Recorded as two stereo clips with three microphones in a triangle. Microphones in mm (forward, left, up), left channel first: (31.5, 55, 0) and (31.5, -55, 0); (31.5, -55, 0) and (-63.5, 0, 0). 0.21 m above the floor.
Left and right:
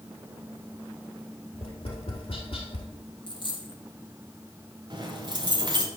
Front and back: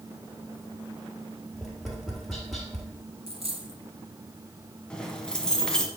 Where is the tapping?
60° left, 1.7 m.